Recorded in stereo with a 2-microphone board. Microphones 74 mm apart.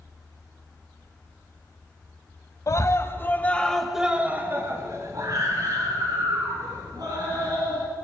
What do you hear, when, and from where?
2.7 s a scream: 45° left (ahead or behind), 1.3 m; by 7.8 s 70° right (ahead or behind), 3.5 m